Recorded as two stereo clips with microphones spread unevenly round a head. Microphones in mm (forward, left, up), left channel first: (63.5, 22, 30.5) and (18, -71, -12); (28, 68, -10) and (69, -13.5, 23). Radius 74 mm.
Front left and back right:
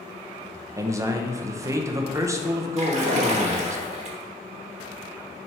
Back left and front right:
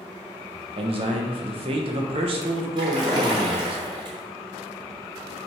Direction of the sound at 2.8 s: 95° right.